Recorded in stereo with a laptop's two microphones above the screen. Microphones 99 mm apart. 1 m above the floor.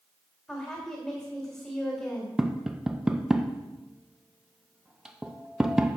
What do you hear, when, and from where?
0.5 s a woman speaking: 15° left (ahead or behind), 2.5 m
2.4 s tapping: 5° right (ahead or behind), 0.6 m